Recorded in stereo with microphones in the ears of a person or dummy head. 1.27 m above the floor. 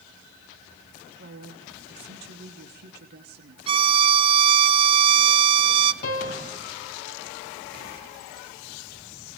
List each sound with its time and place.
1.2 s a woman speaking: 55° right (ahead or behind), 3 m
3.7 s a violin: 30° right (ahead or behind), 0.9 m
6.0 s a piano: 45° left (ahead or behind), 3 m